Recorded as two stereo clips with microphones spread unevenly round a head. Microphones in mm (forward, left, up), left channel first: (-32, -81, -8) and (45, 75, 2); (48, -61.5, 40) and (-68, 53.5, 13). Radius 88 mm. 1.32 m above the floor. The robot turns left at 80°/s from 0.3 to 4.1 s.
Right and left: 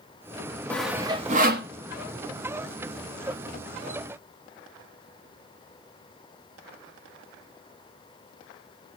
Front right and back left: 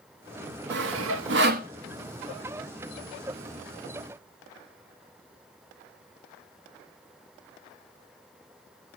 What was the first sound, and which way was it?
Sawing, 160° left.